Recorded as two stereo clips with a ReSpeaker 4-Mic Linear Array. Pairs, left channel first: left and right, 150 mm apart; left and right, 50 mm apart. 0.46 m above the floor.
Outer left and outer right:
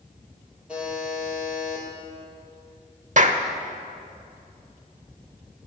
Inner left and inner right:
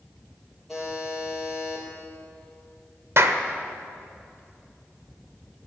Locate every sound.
0.7 s a buzzer: 5° right (ahead or behind), 4.5 m
3.2 s a clap: 55° right (ahead or behind), 1.0 m